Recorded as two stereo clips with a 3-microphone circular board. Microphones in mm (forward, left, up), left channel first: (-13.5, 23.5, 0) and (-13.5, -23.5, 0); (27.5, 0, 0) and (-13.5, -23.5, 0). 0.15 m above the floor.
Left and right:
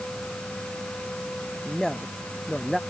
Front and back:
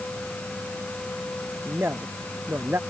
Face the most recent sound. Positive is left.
turn(degrees=175)